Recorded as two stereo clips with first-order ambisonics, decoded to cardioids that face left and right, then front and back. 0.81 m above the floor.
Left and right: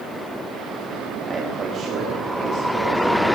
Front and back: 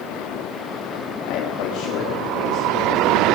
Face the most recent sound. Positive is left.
turn(degrees=-60)